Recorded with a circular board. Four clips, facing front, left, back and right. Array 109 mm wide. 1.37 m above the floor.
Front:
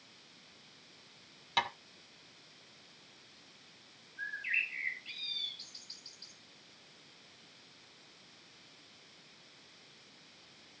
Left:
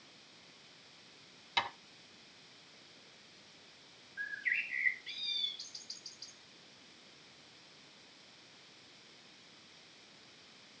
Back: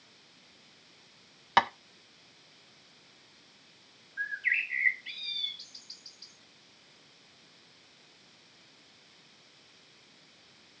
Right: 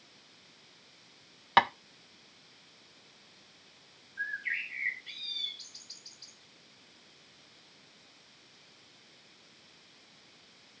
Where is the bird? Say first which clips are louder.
Right 3 dB, back 6 dB; 175° left, 4 m.